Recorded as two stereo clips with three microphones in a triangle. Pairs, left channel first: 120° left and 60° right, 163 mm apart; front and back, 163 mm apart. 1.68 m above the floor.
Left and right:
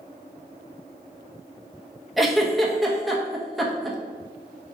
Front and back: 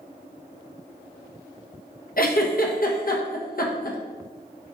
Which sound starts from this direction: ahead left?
A giggle, at 2.2 s.